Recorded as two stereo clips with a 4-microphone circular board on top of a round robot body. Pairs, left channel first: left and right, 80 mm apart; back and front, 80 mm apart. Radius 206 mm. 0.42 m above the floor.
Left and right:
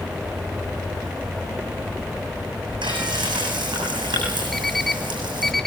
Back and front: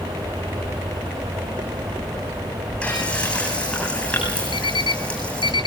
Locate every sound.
2.8 s frying: 105° right, 8 m
4.5 s an alarm clock: 175° left, 1.3 m